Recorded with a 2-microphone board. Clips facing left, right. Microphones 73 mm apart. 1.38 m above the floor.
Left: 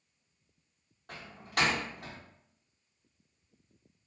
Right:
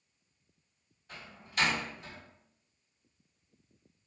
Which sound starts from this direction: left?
A door slam, at 1.1 s.